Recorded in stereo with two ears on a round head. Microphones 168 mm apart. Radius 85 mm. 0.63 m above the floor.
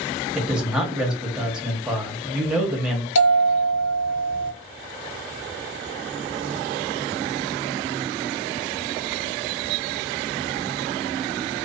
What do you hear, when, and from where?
0.3 s a man speaking: 5° right (ahead or behind), 0.9 m
3.1 s a bell: 85° left, 1.2 m